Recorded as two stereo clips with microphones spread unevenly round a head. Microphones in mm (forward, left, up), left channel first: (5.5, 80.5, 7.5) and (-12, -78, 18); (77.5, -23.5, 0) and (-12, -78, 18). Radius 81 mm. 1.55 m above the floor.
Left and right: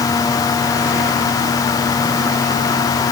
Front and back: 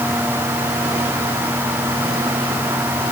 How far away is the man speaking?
No man speaking in this recording.